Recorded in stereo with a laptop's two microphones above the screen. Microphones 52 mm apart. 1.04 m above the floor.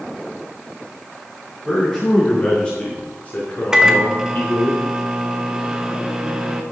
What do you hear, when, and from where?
1.6 s a man speaking: 5° left (ahead or behind), 2 m; by 4.7 s 55° left (ahead or behind), 2 m
3.7 s a microwave: 15° right (ahead or behind), 1.2 m